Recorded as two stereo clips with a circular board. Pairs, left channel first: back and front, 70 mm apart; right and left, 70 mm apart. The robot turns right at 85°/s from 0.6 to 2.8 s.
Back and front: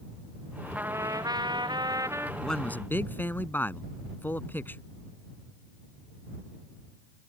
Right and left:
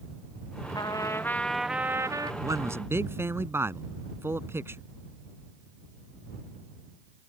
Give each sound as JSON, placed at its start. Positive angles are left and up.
{"t": 0.8, "sound": "a trumpet", "azimuth_deg": -70}
{"t": 2.4, "sound": "a man speaking", "azimuth_deg": 95}